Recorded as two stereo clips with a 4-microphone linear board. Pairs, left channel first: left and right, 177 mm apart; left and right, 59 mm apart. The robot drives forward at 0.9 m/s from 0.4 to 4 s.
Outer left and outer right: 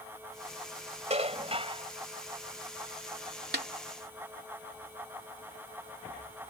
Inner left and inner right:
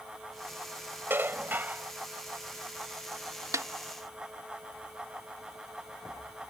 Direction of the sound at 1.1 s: 40° right (ahead or behind).